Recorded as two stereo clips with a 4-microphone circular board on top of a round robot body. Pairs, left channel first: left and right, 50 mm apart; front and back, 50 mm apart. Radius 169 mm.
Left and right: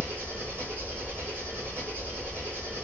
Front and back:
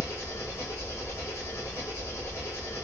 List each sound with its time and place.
0.0 s an engine running: 40° right, 1.6 m